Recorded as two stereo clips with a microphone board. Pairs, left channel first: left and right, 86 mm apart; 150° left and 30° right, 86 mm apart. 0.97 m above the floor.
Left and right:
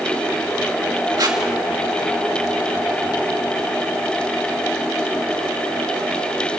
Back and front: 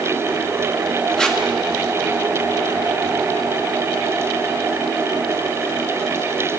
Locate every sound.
1.2 s tape being pulled: 130° right, 2 m